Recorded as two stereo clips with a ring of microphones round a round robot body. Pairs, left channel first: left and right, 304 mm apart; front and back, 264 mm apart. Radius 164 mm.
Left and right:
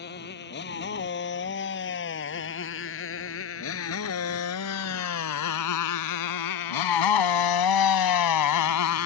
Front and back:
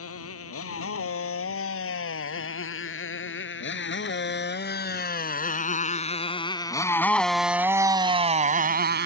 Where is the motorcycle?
30° left; by 9.1 s 130° left.